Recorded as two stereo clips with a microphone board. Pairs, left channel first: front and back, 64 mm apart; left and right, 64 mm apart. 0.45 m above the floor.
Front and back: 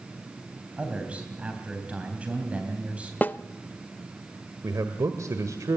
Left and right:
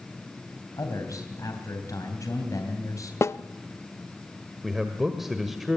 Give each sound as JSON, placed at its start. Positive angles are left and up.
{"t": 0.8, "sound": "a man speaking", "azimuth_deg": 110, "distance_m": 3.0}
{"t": 3.2, "sound": "a snare drum", "azimuth_deg": 55, "distance_m": 0.5}
{"t": 4.6, "sound": "a man speaking", "azimuth_deg": -175, "distance_m": 1.6}